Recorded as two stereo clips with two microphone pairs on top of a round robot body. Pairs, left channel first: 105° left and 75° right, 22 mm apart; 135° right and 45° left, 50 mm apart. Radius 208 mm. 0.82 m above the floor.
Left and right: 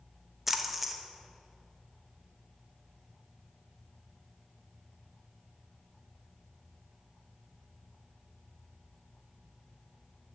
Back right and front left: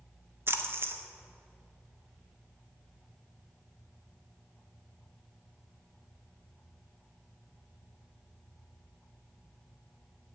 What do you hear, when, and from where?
0.5 s a splash: 5° left, 1.3 m